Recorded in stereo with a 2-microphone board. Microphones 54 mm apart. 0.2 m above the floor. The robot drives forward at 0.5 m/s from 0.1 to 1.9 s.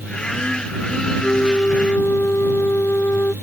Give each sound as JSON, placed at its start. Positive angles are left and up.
{"t": 1.2, "sound": "a flute", "side_deg": 50}